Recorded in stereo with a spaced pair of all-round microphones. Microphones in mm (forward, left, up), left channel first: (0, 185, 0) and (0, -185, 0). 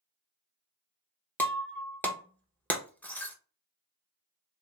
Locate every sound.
1.4 s breaking glass: 5° left (ahead or behind), 0.7 m